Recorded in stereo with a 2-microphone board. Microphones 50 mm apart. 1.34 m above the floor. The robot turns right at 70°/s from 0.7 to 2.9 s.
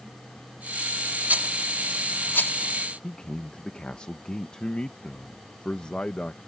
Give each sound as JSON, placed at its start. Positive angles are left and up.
{"t": 1.3, "sound": "a rattle", "side_deg": -35}
{"t": 3.0, "sound": "a man speaking", "side_deg": 20}